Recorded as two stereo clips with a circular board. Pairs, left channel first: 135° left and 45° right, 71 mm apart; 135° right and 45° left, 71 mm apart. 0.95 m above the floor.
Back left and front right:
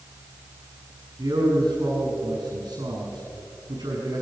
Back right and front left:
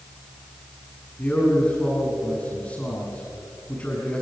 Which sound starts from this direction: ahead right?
A man speaking, at 1.2 s.